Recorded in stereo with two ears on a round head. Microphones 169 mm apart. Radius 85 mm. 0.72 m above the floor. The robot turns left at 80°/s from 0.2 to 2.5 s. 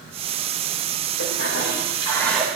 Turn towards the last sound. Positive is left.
turn(degrees=-10)